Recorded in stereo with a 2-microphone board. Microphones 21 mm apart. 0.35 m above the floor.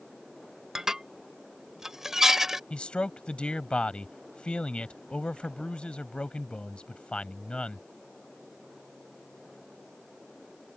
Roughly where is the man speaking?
Left.